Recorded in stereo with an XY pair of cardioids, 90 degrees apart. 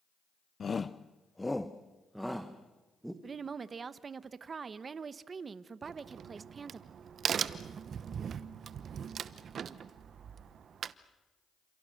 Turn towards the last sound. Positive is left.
turn(degrees=-65)